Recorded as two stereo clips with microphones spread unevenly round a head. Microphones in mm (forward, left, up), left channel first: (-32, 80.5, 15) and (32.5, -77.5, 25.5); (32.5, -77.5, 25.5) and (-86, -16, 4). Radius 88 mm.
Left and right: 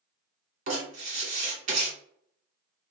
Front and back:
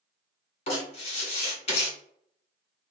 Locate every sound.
0.7 s writing: 35° right, 1.4 m